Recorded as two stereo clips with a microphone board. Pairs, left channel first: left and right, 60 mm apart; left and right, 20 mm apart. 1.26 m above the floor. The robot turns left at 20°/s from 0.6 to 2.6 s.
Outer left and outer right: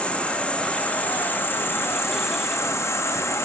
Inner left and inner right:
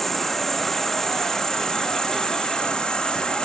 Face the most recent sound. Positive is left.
turn(degrees=115)